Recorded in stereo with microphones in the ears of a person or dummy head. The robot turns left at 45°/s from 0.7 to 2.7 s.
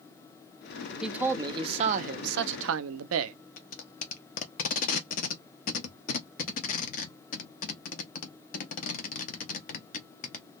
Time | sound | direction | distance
1.0 | a man speaking | straight ahead | 0.5 m
3.6 | tape being pulled | 50° left (ahead or behind) | 0.6 m